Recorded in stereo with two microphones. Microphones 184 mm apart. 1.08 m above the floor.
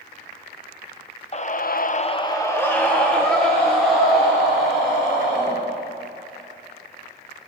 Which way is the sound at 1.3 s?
35° left (ahead or behind).